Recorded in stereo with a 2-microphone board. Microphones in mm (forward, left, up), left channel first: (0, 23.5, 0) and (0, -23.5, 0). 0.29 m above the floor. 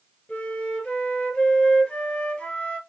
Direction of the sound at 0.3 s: 30° left (ahead or behind).